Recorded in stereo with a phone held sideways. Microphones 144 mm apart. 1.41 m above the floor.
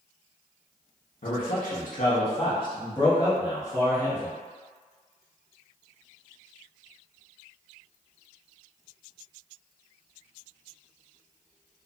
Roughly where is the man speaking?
Left.